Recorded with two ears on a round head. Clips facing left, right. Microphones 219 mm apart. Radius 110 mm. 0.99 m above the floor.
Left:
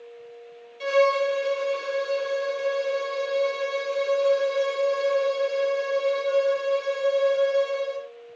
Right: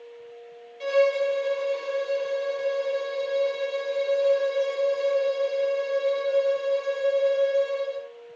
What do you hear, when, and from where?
0.8 s a violin: 15° left (ahead or behind), 0.6 m